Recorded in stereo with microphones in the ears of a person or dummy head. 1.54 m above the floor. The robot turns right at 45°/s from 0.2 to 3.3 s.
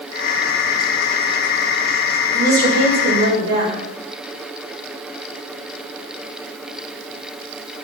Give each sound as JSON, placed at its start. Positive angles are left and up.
{"t": 2.3, "sound": "a woman speaking", "azimuth_deg": -145, "distance_m": 4.5}